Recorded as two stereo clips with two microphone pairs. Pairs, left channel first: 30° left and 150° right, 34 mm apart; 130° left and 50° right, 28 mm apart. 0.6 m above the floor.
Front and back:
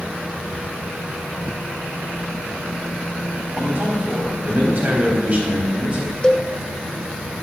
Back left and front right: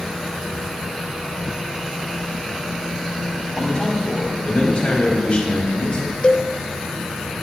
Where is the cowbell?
95° left, 0.7 m.